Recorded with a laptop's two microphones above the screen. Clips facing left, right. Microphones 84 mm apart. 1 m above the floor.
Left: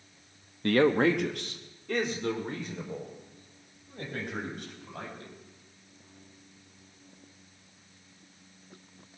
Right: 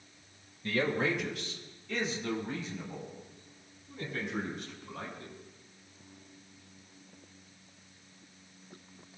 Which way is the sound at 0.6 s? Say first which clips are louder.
Left 8 dB; 65° left (ahead or behind).